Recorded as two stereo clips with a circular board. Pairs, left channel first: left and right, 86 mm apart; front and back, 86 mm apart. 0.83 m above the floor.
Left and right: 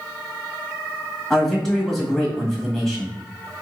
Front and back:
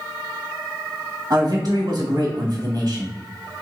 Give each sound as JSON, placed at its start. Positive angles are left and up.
{"t": 1.3, "sound": "a man speaking", "azimuth_deg": 180, "distance_m": 1.5}